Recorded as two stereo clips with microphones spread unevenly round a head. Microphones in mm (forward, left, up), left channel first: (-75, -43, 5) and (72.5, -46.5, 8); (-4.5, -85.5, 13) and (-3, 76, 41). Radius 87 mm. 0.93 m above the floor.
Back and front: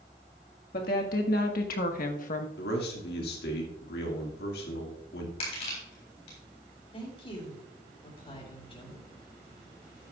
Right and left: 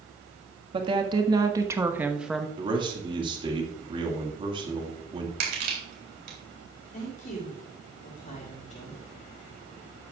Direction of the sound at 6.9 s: 130° right.